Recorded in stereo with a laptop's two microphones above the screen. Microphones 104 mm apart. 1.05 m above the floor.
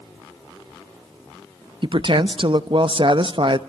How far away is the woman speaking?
About 0.9 m.